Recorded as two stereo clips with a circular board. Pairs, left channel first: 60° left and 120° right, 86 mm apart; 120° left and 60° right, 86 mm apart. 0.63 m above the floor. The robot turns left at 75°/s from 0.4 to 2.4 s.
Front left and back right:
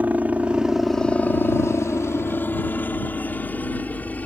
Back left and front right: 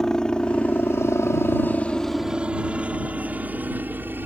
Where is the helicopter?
165° right; by 4.3 s 5° right.